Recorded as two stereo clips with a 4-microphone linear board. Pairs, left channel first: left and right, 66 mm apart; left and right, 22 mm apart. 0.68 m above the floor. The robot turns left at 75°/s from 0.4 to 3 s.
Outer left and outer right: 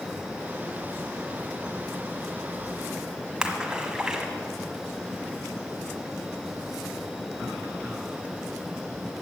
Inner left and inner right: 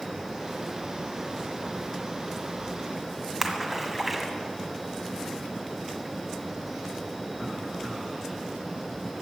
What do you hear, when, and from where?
3.4 s a splash: 10° right (ahead or behind), 1.6 m